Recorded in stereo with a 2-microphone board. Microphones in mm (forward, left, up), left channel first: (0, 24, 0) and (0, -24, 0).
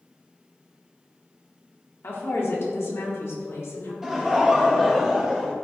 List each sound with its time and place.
2.0 s a woman speaking: 60° left (ahead or behind), 1.8 m; by 3.9 s 75° left (ahead or behind), 2.5 m
4.0 s laughter: 15° right (ahead or behind), 1.3 m